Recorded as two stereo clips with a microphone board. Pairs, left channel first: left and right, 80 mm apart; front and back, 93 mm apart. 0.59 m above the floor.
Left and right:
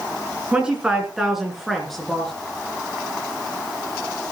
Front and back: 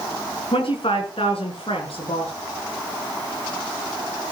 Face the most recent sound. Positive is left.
turn(degrees=5)